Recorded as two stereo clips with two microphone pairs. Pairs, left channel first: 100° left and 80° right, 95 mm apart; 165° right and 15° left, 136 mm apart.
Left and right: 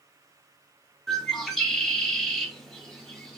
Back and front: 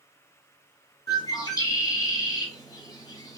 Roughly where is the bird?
Behind.